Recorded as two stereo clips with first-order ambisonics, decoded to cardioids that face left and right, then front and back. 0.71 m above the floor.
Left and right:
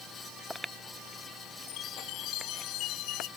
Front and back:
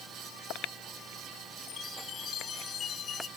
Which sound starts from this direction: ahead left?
A chime, at 1.7 s.